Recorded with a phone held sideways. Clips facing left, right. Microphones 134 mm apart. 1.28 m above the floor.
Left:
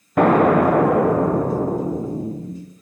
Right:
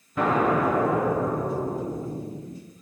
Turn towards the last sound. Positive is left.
turn(degrees=65)  # may be behind; listen again after turning